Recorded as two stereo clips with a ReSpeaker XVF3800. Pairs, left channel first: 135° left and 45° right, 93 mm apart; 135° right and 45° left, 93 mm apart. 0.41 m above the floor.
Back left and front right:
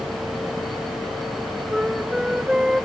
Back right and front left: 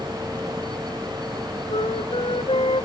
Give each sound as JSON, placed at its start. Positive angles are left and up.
{"t": 1.7, "sound": "a flute", "azimuth_deg": -130}